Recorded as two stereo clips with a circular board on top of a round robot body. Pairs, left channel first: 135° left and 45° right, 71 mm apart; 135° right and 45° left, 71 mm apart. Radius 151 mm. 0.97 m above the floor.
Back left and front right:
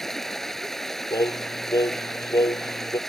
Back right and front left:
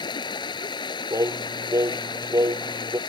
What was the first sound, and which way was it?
Running water, 140° right.